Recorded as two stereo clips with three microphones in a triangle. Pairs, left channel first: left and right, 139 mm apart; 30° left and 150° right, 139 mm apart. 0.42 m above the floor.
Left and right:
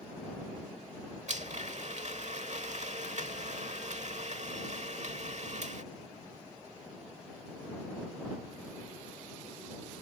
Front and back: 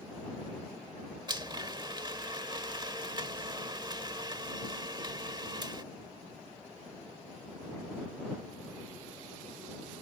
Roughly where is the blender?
Right.